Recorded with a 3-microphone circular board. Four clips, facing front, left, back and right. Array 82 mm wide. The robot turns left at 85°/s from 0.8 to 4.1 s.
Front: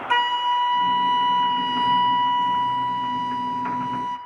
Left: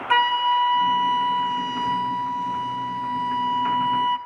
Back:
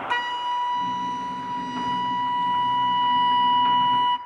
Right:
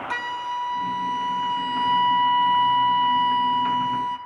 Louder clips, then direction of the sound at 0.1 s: Left 11 dB, front 6 dB; 65° left.